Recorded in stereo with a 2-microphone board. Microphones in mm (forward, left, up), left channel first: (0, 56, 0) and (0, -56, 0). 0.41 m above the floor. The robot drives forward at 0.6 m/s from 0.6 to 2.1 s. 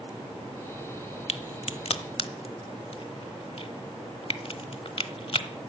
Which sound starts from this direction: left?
A crack, at 1.3 s.